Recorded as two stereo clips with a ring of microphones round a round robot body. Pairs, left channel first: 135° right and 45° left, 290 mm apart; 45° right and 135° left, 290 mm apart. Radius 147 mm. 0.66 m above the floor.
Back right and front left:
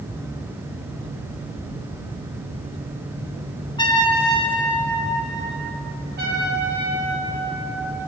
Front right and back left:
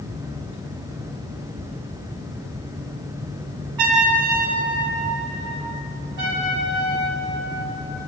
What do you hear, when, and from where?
3.8 s a trumpet: 150° left, 3.5 m
6.2 s a trumpet: 105° left, 6 m